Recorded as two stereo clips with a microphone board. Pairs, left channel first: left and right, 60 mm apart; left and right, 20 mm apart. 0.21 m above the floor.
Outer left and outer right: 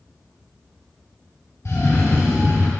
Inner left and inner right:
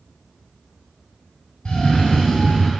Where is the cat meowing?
No cat meowing in this recording.